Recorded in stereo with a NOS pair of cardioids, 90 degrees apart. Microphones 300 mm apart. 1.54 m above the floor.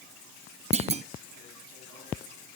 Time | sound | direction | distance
0.7 | a clunk | 20° right | 0.9 m